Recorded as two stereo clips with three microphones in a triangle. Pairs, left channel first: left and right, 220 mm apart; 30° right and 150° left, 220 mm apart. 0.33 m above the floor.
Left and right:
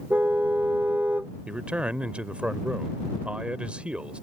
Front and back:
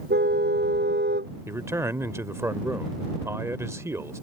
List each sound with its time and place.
0.1 s a car horn: 170° right
1.5 s a man speaking: 160° right